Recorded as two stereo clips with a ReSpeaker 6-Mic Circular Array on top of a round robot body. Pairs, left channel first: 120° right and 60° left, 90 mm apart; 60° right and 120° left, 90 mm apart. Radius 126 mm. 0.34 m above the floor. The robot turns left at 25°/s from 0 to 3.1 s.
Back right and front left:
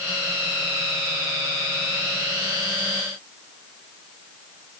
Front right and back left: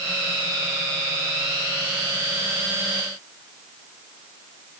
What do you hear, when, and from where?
Only background noise.